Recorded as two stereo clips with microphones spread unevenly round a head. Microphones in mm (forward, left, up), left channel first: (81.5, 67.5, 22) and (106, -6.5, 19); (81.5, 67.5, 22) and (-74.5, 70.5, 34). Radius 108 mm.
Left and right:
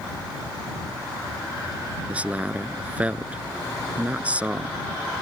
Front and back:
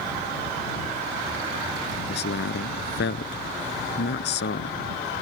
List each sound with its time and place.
2.1 s a man speaking: straight ahead